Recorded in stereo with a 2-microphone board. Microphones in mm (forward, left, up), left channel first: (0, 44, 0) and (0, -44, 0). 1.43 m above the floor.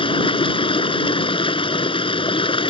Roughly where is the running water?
Left.